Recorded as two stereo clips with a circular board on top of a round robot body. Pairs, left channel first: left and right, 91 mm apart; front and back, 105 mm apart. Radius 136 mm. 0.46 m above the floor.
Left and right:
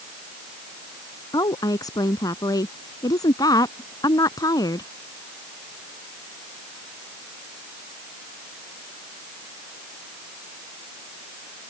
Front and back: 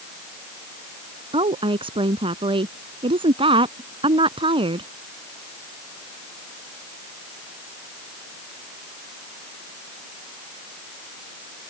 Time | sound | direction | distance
1.3 | a woman speaking | 140° left | ?